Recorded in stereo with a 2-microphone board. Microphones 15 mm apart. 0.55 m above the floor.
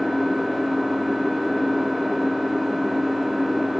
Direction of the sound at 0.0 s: 10° left (ahead or behind).